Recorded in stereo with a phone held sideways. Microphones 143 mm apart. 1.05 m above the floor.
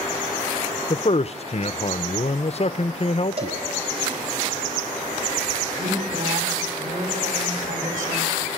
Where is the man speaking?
45° left (ahead or behind), 0.5 m.